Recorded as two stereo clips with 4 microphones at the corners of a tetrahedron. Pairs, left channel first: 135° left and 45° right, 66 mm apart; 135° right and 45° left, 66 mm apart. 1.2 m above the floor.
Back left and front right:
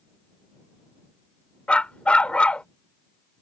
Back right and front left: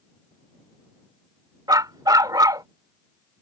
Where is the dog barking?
60° left.